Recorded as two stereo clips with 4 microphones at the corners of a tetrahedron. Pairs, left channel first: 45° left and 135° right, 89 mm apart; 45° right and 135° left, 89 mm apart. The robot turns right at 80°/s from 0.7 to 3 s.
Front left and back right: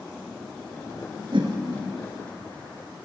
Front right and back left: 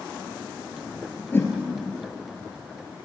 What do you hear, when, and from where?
1.3 s a whoosh: 115° right, 3.5 m; by 1.5 s 100° right, 3.5 m